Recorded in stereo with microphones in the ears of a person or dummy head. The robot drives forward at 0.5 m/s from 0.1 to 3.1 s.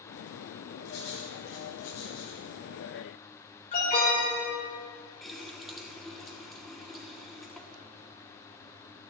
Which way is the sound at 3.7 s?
40° left (ahead or behind).